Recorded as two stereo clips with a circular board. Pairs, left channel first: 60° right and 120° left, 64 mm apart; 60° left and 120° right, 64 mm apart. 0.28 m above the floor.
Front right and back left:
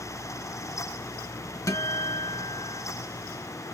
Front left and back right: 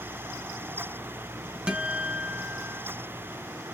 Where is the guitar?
50° right, 0.6 m.